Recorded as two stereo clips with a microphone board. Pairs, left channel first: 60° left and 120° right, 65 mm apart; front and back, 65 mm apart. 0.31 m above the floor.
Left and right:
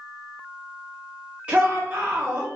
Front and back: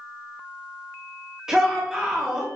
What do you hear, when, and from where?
1.5 s a shout: 120° right, 0.9 m